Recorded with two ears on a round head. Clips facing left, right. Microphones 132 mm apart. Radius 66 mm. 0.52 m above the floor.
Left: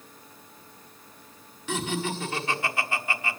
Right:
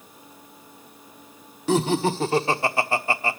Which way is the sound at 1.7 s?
30° right (ahead or behind).